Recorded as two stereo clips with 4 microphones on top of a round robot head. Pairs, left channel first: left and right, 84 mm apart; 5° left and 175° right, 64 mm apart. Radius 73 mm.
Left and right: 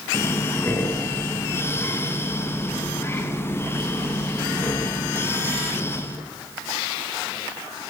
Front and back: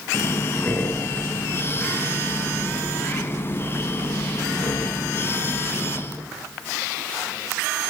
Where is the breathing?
40° left, 0.9 m.